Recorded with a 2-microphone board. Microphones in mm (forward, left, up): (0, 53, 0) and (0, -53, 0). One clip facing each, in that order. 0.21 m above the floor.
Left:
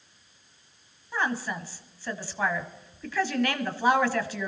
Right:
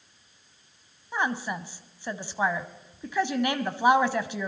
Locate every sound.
1.1 s a woman speaking: 20° right (ahead or behind), 1.0 m